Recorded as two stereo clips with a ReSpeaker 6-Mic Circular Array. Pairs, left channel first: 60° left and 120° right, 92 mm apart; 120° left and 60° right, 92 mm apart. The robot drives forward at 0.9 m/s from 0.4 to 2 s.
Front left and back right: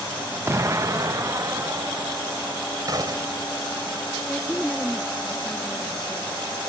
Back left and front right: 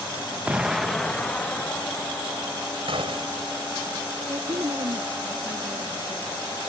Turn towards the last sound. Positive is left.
turn(degrees=-20)